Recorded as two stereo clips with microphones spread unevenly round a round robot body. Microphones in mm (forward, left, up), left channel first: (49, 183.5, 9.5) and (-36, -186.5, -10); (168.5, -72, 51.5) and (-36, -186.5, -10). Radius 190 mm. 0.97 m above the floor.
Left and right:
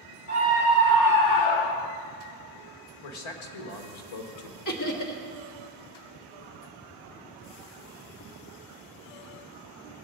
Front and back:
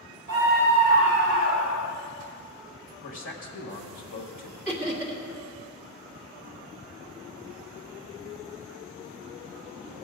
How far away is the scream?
About 2 m.